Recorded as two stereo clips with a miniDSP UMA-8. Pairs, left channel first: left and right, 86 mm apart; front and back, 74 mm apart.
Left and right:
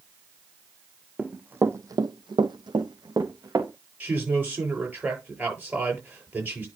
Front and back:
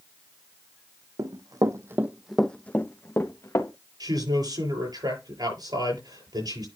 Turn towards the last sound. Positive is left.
turn(degrees=-160)